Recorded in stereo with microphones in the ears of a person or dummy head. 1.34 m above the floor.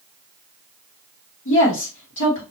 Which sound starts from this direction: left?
A woman speaking, at 1.4 s.